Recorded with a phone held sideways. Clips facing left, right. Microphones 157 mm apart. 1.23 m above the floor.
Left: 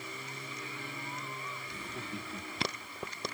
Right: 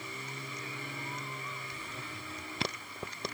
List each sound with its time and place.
1.7 s laughter: 80° left, 2.5 m